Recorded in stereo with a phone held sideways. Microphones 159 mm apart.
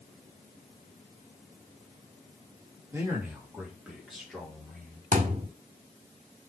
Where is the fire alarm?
No fire alarm in this recording.